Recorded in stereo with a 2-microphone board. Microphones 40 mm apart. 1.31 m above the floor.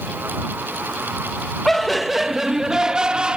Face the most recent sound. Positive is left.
turn(degrees=-30)  # may be behind; listen again after turning